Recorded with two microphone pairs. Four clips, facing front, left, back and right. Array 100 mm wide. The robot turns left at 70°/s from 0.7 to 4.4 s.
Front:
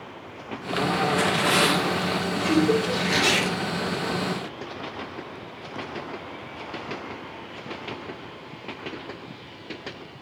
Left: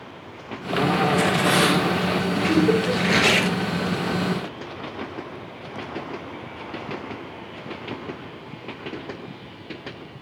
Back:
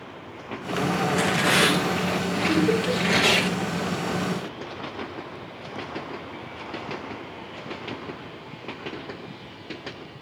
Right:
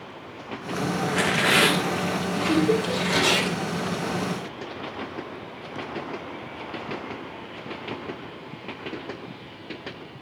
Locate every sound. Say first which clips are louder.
1.1 s tearing paper: left 3 dB, even; 100° right, 2.5 m; by 3.5 s 90° left, 2.5 m
2.5 s laughter: left 2 dB, front 1 dB; 135° left, 3.5 m; by 3.0 s 100° left, 3.5 m